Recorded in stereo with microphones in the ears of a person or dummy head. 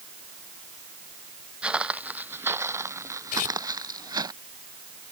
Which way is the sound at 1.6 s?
5° right (ahead or behind).